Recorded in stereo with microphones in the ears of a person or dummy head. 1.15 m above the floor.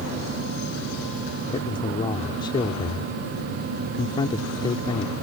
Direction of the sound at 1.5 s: 25° left (ahead or behind).